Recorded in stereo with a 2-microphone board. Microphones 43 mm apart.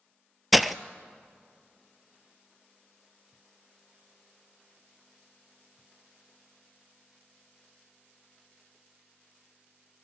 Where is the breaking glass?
5° right (ahead or behind), 0.5 m.